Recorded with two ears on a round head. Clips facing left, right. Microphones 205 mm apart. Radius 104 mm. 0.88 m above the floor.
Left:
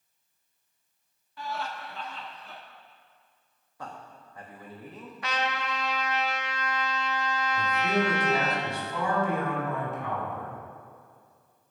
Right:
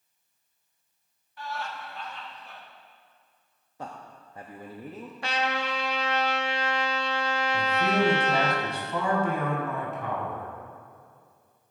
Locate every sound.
1.4 s laughter: 65° left (ahead or behind), 1.3 m
3.8 s a man speaking: 20° right (ahead or behind), 0.9 m
5.2 s a trumpet: 25° right (ahead or behind), 1.0 m
7.5 s a man speaking: 60° right (ahead or behind), 4.5 m